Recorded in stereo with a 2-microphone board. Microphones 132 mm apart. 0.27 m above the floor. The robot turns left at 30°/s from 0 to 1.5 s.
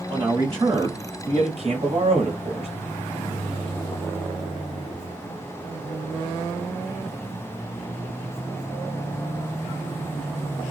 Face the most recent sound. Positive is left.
turn(degrees=-80)